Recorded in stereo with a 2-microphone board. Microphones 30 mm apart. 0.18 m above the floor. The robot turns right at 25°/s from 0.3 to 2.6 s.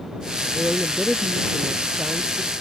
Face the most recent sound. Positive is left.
turn(degrees=-125)